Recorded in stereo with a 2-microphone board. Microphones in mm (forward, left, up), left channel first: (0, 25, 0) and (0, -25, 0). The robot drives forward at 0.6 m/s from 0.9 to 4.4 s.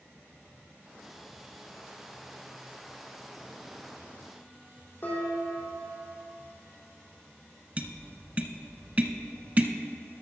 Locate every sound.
5.0 s dishes clattering: 40° left (ahead or behind), 3.5 m
7.8 s tapping: 35° right (ahead or behind), 0.6 m